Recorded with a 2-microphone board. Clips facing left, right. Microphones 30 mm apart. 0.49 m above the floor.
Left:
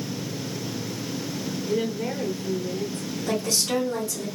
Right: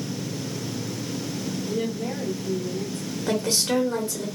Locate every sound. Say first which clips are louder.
1.7 s a woman speaking: left 3 dB; 45° left (ahead or behind), 1.0 m
3.3 s a woman speaking: right 2 dB; 35° right (ahead or behind), 1.4 m